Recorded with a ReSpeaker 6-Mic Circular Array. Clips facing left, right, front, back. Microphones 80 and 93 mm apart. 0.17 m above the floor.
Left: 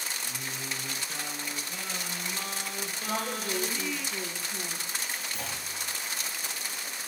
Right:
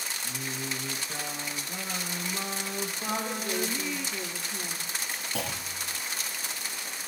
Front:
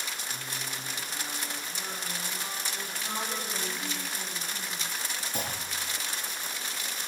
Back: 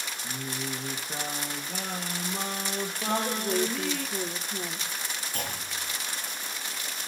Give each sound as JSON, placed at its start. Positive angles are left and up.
{"t": 0.2, "sound": "singing", "azimuth_deg": -160, "distance_m": 4.5}
{"t": 3.1, "sound": "a woman speaking", "azimuth_deg": 175, "distance_m": 7.0}
{"t": 5.3, "sound": "a clunk", "azimuth_deg": -75, "distance_m": 6.0}